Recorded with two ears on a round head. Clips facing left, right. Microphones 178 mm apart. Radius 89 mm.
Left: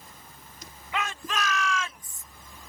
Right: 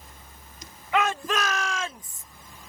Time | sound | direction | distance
0.9 | a shout | 50° right (ahead or behind) | ?